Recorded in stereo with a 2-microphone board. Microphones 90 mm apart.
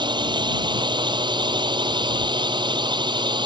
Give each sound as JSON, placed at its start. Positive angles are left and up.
{"t": 0.0, "sound": "a drone", "side_deg": -60}